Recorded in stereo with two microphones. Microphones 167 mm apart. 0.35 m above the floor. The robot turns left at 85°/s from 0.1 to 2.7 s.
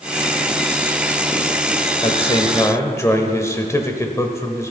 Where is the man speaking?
85° left, 1.2 m; by 4.7 s 30° left, 1.2 m.